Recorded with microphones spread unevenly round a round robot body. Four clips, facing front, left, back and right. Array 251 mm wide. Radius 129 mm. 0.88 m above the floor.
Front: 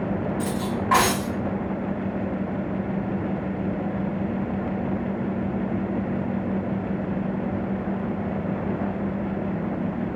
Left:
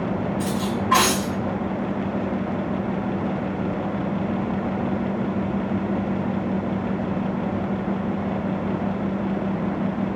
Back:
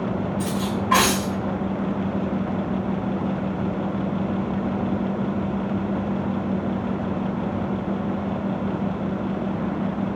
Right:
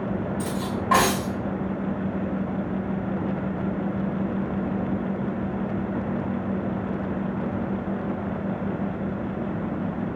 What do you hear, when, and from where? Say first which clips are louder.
0.4 s cutlery clinking: left 3 dB, back 1 dB; 70° right, 3 m